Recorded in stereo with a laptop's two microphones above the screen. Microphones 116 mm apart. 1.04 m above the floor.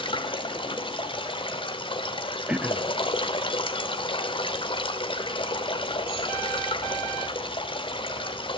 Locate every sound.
0.0 s running water: 45° left (ahead or behind), 2.0 m
2.5 s throat clearing: 10° right (ahead or behind), 0.6 m